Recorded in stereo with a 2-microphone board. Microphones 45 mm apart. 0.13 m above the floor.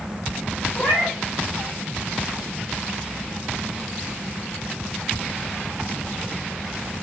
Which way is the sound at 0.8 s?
45° left (ahead or behind).